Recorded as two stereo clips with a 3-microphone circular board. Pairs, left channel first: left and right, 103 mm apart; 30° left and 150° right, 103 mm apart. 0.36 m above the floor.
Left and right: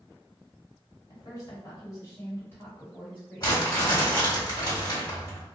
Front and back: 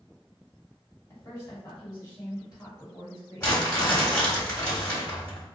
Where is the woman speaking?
75° left, 1.6 m; by 4.1 s 5° left, 1.8 m.